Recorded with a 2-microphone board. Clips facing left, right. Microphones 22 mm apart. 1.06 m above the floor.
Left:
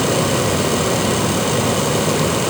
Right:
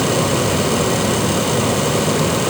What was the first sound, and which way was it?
Only background noise.